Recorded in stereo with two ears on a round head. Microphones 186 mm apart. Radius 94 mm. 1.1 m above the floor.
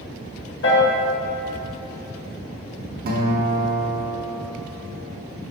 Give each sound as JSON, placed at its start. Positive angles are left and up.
{"t": 0.6, "sound": "a piano", "side_deg": 60, "distance_m": 1.6}
{"t": 3.1, "sound": "a guitar", "side_deg": -45, "distance_m": 1.0}